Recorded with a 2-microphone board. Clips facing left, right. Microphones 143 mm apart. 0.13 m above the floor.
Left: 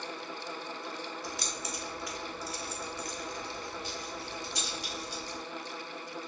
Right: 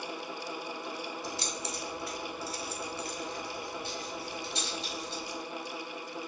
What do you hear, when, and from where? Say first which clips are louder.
1.2 s keys jangling: right 2 dB; 30° right (ahead or behind), 0.9 m; by 5.4 s 25° right (ahead or behind), 2.5 m